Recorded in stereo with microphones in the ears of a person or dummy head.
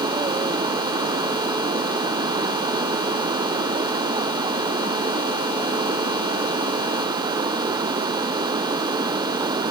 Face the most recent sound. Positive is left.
turn(degrees=-25)  # may be behind; listen again after turning